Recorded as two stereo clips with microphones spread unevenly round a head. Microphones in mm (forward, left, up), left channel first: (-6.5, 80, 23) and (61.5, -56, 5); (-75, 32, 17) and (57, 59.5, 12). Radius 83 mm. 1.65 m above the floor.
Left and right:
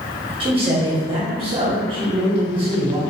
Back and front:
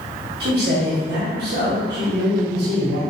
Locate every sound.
0.4 s a man speaking: 5° right, 1.7 m